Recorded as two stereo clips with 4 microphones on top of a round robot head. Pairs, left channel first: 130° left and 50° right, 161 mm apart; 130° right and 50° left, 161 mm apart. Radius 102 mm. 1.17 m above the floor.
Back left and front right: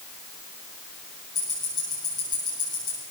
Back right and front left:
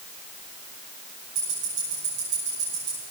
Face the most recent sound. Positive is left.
turn(degrees=65)